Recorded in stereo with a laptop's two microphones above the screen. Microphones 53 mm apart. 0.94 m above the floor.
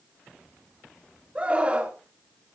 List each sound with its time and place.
1.4 s a scream: 20° right (ahead or behind), 2.5 m